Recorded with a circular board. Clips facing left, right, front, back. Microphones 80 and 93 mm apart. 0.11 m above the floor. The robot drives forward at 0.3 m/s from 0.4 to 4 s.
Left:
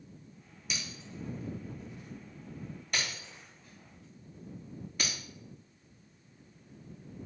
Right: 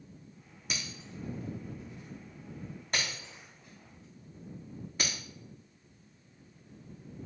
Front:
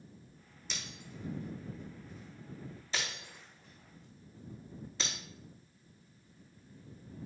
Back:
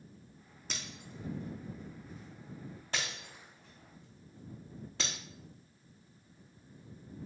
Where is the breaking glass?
135° right, 2.5 m; by 5.1 s 150° right, 3 m.